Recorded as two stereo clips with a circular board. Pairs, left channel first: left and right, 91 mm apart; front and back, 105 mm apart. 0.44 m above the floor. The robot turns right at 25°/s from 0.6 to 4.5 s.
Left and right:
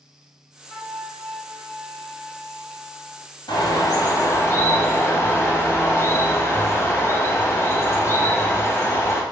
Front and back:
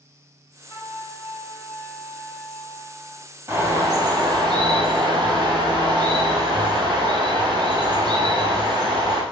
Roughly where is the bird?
Behind left.